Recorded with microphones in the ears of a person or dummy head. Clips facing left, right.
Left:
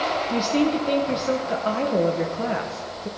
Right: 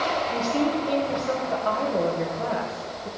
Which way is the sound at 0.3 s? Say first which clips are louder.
Left 4 dB; 35° left (ahead or behind).